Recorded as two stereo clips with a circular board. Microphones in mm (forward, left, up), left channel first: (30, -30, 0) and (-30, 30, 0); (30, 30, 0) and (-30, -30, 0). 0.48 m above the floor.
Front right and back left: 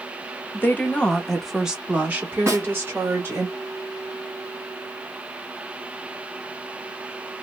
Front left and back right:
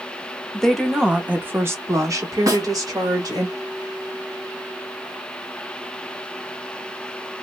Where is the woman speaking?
30° right, 0.8 m; by 3.5 s 165° right, 1.6 m.